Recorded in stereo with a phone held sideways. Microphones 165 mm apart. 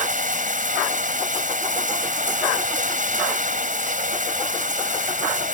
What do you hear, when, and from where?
0.0 s running water: 55° right (ahead or behind)